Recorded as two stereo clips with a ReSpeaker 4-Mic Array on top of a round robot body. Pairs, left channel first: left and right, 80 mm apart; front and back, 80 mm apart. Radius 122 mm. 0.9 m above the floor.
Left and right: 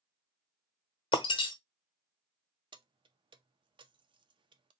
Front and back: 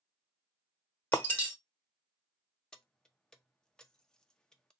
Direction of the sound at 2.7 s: 80° right.